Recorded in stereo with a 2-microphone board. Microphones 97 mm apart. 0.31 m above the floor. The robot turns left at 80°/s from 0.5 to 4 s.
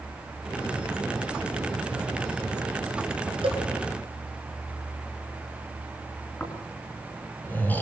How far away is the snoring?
About 4 m.